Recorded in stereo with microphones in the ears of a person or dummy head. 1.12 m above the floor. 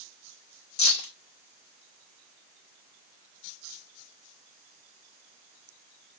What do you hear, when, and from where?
0.8 s keys jangling: 80° left, 3.5 m